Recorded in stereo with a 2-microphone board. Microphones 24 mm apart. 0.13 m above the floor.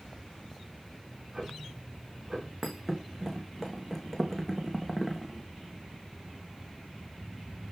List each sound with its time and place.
1.1 s ticking: 30° right (ahead or behind), 6 m
2.6 s a thud: centre (ahead or behind), 2.5 m